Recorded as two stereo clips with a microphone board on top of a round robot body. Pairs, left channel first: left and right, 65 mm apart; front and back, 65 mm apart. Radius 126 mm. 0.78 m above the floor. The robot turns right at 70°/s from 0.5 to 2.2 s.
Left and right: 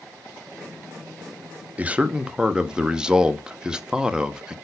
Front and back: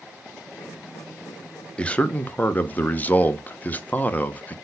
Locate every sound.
1.8 s a man speaking: 55° right, 0.5 m; by 4.5 s 25° right, 0.5 m